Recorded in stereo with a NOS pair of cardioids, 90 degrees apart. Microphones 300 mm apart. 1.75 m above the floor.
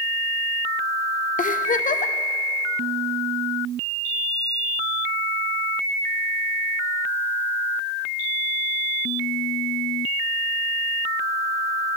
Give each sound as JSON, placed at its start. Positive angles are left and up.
{"t": 1.4, "sound": "a giggle", "azimuth_deg": 25, "distance_m": 0.8}